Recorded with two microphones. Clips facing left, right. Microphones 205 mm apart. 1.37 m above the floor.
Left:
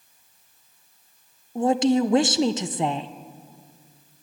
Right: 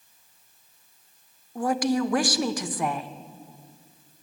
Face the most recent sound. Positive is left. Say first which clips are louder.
# left 5 dB
turn(degrees=25)  # may be behind; listen again after turning